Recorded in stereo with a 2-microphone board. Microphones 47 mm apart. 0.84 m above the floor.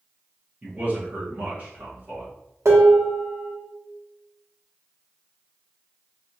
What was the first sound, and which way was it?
A man speaking, 35° right (ahead or behind).